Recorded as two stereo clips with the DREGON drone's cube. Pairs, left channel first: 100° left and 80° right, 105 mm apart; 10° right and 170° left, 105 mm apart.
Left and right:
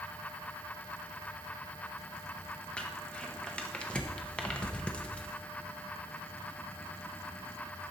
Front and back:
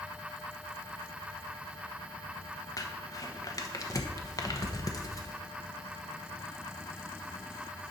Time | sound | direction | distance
2.8 | crumpling | 25° left | 1.0 m